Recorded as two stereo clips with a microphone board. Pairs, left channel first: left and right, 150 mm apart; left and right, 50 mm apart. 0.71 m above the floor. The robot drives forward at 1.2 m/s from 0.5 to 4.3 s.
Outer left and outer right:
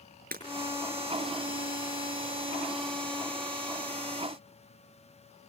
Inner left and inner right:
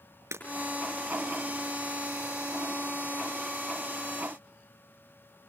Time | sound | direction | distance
0.3 | breaking glass | 75° right (ahead or behind) | 6.5 m